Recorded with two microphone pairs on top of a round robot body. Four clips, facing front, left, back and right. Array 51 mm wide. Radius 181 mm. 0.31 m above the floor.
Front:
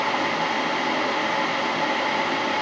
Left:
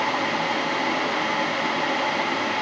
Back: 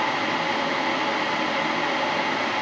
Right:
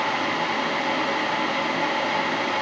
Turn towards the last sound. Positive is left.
No sound to turn to.